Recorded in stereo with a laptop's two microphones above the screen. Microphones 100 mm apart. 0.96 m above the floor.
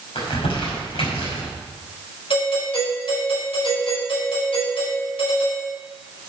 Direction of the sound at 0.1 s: 85° left.